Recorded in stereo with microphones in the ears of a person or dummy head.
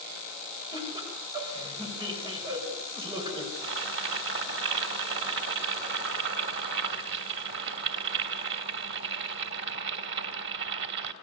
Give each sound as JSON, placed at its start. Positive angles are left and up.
{"t": 0.7, "sound": "laughter", "side_deg": -20, "distance_m": 6.0}
{"t": 3.5, "sound": "boiling", "side_deg": -60, "distance_m": 2.5}